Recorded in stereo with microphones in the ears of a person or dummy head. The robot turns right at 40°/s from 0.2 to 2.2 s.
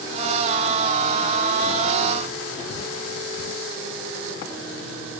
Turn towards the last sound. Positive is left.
No sound to turn to.